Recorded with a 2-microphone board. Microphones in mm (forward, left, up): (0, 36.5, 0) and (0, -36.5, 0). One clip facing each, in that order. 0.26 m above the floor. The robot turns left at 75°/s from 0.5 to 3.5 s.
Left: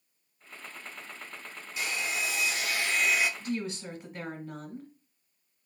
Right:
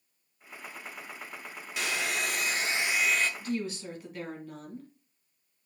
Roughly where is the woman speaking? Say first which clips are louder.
Right 1 dB; left.